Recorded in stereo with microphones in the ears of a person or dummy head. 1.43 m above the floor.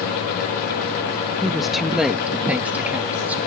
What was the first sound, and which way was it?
A woman speaking, centre (ahead or behind).